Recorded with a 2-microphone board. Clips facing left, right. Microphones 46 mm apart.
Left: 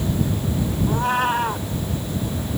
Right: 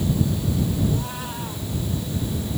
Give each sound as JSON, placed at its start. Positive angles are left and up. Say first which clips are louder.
{"t": 0.9, "sound": "a cat meowing", "louder": "left 9 dB", "side_deg": 55}